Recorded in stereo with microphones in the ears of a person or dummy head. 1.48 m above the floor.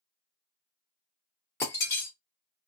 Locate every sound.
1.6 s breaking glass: 15° left (ahead or behind), 0.9 m